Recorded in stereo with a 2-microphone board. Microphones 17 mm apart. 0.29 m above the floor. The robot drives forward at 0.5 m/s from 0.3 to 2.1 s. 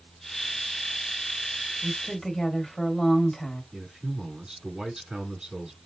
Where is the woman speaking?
25° left (ahead or behind), 1.6 m.